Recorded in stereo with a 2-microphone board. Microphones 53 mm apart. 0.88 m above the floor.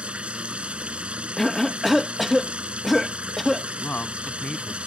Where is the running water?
20° right (ahead or behind).